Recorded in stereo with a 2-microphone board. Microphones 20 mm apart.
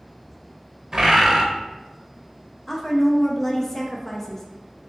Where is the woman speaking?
20° left (ahead or behind), 0.5 m.